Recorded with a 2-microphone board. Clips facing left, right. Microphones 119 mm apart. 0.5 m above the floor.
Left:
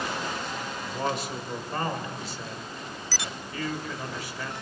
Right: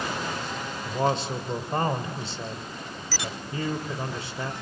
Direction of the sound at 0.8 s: 30° right (ahead or behind).